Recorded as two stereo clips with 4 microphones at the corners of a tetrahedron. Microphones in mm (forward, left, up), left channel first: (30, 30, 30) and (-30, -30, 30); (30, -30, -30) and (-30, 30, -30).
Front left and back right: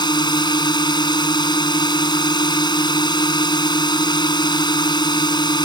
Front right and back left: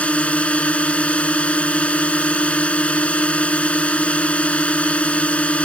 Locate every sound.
0.0 s a drone: 30° left